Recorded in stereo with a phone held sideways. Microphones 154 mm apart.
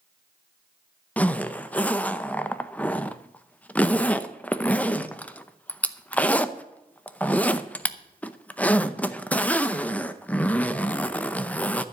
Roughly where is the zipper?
Centre.